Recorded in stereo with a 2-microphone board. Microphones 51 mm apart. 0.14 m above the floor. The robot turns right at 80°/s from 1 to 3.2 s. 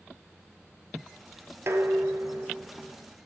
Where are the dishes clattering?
110° right, 2 m; by 2.9 s 10° right, 2 m.